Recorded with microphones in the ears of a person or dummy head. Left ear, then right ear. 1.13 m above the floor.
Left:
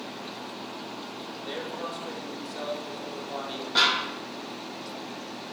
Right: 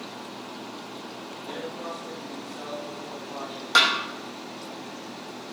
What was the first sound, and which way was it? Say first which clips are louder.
A man speaking: left 1 dB; 30° left (ahead or behind).